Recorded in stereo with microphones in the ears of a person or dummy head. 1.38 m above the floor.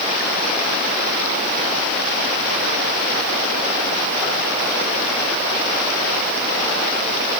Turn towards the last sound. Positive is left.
No sound to turn to.